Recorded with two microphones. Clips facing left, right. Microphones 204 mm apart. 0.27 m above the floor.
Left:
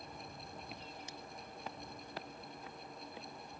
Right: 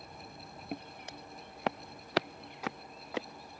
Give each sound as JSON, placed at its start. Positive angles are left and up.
{"t": 0.7, "sound": "footsteps", "side_deg": -55}